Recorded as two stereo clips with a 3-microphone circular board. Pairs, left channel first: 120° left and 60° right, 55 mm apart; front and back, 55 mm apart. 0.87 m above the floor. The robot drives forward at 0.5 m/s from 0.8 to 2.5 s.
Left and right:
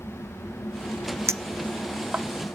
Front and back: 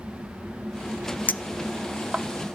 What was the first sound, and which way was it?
A clink, 50° right.